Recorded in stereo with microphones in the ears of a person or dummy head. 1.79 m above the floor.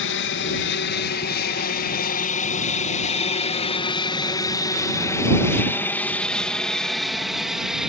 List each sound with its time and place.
0.0 s an aircraft: 60° left (ahead or behind); by 7.9 s 5° right (ahead or behind)